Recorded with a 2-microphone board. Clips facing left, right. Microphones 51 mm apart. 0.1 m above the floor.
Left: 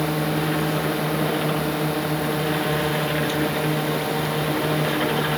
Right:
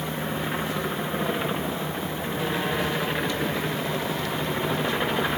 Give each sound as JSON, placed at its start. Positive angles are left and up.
{"t": 0.0, "sound": "a drone", "side_deg": 80}